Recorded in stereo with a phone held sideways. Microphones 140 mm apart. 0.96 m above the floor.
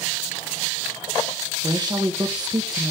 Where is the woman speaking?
30° right (ahead or behind), 0.7 m.